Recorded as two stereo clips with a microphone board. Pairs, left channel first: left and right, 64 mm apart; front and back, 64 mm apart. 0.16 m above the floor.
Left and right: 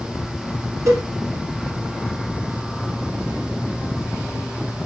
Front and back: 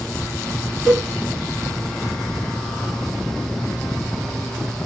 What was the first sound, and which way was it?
A cowbell, 95° right.